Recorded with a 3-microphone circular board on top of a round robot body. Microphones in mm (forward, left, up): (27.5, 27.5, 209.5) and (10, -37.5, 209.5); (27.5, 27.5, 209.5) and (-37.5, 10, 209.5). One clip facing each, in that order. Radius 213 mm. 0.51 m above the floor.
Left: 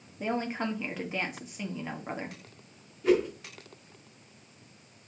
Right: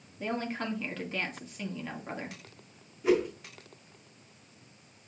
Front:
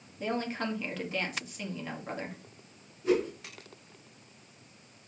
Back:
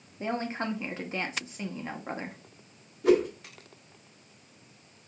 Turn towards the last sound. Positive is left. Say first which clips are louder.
# left 1 dB, back 5 dB
turn(degrees=175)